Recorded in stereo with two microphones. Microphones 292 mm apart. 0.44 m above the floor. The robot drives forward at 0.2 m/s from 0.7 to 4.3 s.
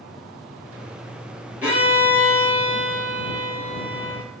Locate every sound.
1.6 s a violin: 5° right (ahead or behind), 1.6 m